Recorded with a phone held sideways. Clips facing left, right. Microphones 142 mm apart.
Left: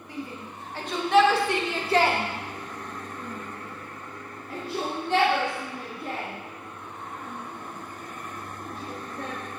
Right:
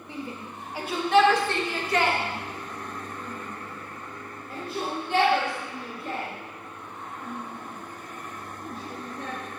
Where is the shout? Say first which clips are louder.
Even; 25° right (ahead or behind), 1.2 m; by 9.4 s 70° left (ahead or behind), 4.5 m.